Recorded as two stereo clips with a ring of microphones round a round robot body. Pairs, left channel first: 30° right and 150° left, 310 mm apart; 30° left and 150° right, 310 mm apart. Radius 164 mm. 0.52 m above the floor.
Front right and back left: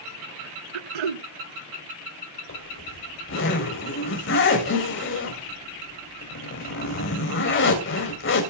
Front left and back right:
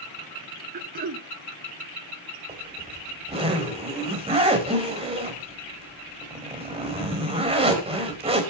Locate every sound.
0.7 s throat clearing: 150° left, 0.6 m
2.5 s a zipper: 80° right, 3.5 m